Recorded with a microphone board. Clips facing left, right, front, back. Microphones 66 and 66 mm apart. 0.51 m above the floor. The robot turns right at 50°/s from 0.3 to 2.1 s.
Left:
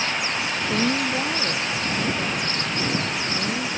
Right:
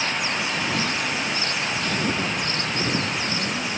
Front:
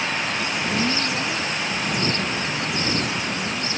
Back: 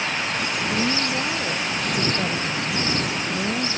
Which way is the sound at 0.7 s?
90° left.